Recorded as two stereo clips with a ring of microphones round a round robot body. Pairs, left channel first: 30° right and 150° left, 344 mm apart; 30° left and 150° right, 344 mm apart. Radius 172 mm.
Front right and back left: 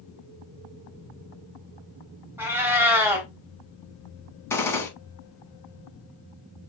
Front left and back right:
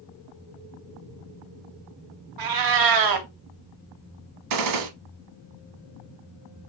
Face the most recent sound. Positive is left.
turn(degrees=-115)